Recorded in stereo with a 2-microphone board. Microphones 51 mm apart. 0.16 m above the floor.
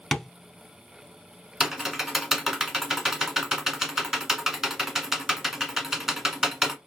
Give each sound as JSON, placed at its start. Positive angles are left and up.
{"t": 0.1, "sound": "tapping", "side_deg": 10, "distance_m": 0.6}
{"t": 1.6, "sound": "typing on a keyboard", "side_deg": -5, "distance_m": 0.8}